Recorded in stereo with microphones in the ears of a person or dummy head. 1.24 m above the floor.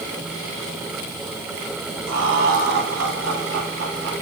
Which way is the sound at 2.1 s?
90° right.